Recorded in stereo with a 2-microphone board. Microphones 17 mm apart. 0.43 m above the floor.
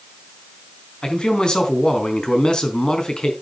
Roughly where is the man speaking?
Left.